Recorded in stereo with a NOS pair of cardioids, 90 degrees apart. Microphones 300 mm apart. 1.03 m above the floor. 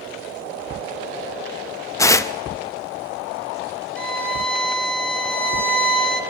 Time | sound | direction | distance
2.0 | tearing paper | 10° left | 0.7 m
4.0 | a violin | 5° left | 1.2 m